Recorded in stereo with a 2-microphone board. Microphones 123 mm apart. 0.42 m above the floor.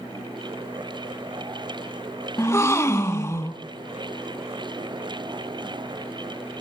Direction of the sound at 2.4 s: 25° left (ahead or behind).